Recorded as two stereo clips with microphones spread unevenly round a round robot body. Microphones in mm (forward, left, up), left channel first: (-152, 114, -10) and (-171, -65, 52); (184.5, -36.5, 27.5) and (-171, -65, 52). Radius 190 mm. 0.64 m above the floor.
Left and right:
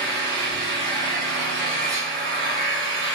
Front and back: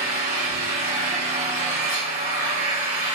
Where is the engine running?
120° right, 1.7 m.